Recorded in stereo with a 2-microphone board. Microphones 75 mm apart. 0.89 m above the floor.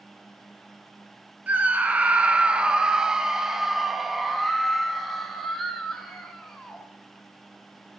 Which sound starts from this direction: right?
A scream, at 1.5 s.